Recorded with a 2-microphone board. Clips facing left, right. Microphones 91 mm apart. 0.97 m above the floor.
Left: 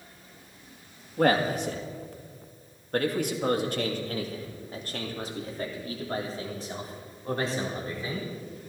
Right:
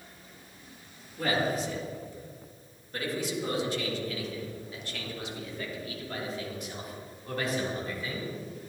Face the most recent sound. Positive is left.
turn(degrees=25)  # may be behind; listen again after turning